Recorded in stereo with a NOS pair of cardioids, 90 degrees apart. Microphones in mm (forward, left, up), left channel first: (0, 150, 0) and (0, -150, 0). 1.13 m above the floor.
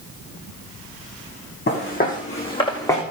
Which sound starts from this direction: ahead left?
Footsteps, at 1.7 s.